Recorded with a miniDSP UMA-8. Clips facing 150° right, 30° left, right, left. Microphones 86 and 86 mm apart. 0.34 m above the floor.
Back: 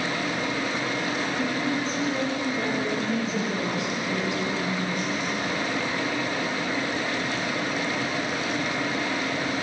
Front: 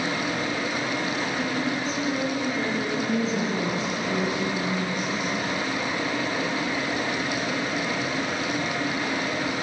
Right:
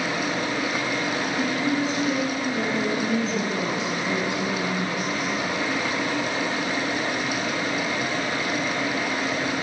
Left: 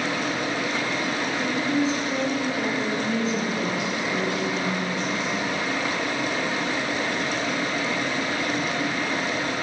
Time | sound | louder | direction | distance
1.4 | a woman speaking | even, left 1 dB | 65° right | 3.5 m